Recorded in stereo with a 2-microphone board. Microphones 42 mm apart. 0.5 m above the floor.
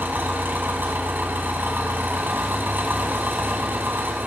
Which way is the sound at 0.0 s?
60° right (ahead or behind).